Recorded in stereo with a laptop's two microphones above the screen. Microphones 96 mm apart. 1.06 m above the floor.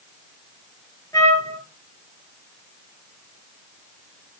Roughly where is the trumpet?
Left.